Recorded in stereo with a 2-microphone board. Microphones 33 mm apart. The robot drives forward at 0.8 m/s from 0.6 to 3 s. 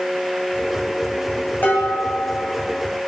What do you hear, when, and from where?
1.6 s dishes clattering: 85° left, 2 m; by 2.8 s 65° left (ahead or behind), 2.5 m